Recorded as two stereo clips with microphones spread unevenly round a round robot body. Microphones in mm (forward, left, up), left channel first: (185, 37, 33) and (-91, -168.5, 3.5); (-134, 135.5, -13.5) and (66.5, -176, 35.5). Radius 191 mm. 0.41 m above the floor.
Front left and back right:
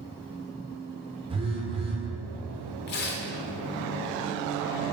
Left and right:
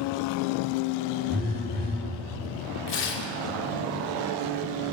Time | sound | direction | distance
1.3 | a phone buzzing | 105° right | 1.2 m
2.9 | tearing paper | 90° left | 0.5 m